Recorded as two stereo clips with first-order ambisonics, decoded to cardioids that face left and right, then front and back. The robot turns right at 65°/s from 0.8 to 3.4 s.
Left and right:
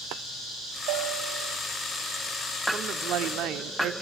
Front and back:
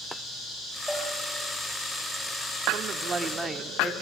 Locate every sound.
0.9 s a bell: 95° right, 10 m; by 1.6 s 50° right, 10 m
2.7 s a woman speaking: 140° right, 1.1 m; by 3.9 s 95° right, 1.1 m